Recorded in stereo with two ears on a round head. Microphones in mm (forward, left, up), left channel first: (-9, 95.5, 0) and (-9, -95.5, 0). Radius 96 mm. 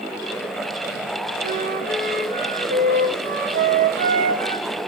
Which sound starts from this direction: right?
A flute, at 1.4 s.